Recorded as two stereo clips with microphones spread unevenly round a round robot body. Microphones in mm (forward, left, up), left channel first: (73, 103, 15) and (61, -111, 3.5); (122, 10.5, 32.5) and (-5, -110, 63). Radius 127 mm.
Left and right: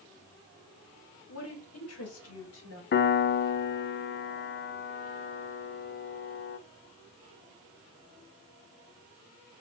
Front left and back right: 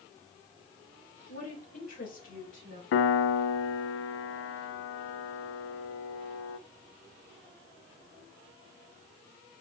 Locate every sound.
1.3 s a woman speaking: 85° left, 3.5 m; by 2.8 s 90° left, 4.5 m
2.9 s a piano: 45° left, 0.6 m